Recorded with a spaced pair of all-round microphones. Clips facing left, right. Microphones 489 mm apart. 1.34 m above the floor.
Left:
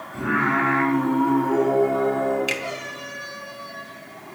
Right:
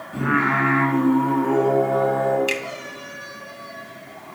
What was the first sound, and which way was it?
Singing, 85° right.